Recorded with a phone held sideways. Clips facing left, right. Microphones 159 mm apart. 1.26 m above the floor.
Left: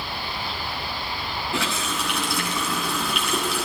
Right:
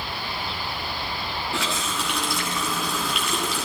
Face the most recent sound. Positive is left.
turn(degrees=0)  # may be behind; listen again after turning